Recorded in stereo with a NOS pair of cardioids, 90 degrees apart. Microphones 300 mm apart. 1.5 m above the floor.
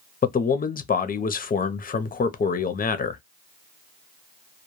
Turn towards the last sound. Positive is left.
turn(degrees=30)